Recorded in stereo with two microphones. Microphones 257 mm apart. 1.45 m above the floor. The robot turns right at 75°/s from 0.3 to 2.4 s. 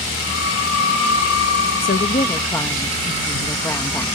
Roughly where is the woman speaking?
Behind left.